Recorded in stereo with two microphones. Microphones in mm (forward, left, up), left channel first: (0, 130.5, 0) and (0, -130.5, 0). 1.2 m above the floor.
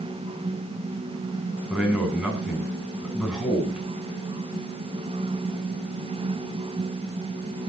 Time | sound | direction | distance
1.7 | a man speaking | centre (ahead or behind) | 9.5 m